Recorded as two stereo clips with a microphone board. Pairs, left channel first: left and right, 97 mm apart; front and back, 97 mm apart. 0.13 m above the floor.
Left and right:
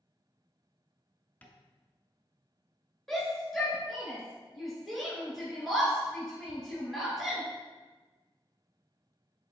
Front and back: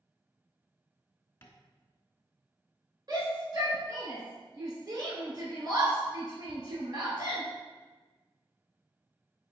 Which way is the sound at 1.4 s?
35° left.